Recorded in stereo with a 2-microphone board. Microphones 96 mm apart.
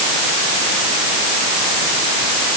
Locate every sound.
Only background noise.